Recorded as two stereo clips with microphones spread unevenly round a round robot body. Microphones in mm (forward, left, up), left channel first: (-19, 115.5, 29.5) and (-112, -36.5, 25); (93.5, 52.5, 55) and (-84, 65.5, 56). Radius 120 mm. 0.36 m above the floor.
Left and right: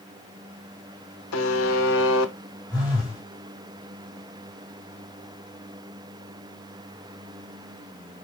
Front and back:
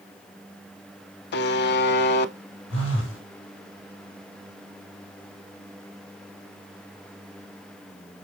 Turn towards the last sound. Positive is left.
turn(degrees=-15)